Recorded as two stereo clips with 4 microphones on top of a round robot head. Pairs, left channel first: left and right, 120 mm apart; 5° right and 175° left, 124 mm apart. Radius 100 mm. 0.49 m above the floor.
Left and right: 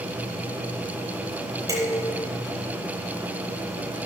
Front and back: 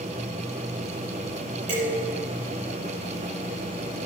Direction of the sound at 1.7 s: 150° right.